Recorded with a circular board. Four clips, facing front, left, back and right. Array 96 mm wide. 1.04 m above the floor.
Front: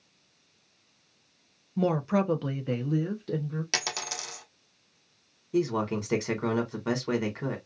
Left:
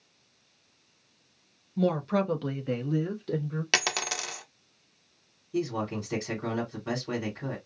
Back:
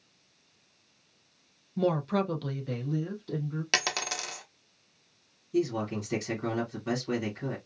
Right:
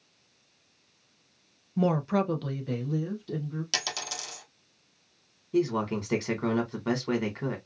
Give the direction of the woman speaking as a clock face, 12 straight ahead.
2 o'clock.